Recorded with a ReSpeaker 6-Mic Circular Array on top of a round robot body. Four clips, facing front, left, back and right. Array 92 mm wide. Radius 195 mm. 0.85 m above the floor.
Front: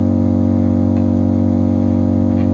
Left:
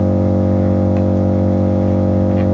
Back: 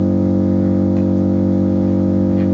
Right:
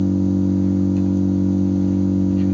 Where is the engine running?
85° left, 4 m.